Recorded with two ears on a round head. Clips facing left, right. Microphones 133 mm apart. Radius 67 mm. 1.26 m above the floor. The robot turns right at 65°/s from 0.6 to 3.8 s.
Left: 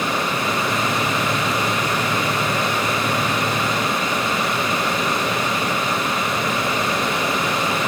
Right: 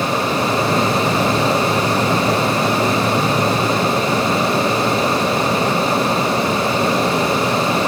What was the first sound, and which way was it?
Only background noise.